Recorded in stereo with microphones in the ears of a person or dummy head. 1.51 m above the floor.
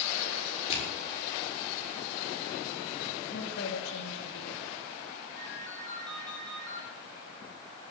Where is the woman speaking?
75° left (ahead or behind), 2.5 m.